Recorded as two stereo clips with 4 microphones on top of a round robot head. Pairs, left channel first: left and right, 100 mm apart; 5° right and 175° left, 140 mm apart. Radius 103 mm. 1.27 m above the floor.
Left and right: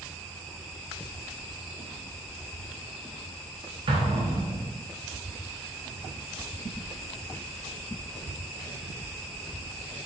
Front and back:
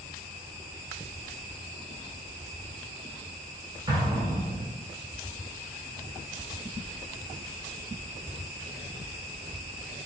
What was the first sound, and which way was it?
An explosion, 115° right.